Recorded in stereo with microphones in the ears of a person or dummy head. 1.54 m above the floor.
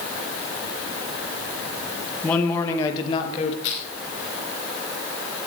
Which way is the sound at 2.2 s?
20° left (ahead or behind).